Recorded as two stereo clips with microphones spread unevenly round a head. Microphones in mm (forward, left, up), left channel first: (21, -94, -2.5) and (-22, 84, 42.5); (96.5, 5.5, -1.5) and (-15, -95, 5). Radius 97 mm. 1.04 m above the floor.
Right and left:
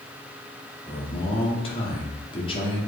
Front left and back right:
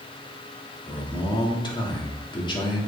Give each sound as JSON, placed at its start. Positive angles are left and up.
{"t": 0.9, "sound": "a man speaking", "azimuth_deg": -15, "distance_m": 1.9}